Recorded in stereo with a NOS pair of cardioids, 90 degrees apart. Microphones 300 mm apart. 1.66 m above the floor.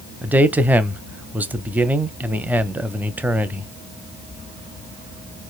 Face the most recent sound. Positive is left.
turn(degrees=-5)